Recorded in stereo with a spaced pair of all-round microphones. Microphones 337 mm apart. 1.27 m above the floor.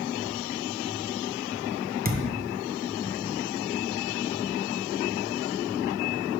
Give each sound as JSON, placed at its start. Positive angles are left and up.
{"t": 2.0, "sound": "a thud", "side_deg": -30, "distance_m": 0.6}